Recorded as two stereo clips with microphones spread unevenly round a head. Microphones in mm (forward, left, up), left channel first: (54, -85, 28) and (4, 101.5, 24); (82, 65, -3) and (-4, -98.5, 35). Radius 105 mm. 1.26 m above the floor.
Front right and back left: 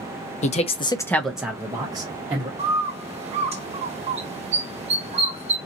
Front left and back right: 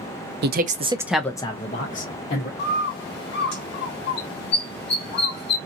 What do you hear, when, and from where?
0.4 s a man speaking: 115° right, 0.6 m; by 2.5 s 40° left, 1.1 m
2.6 s a bird: 50° left, 1.2 m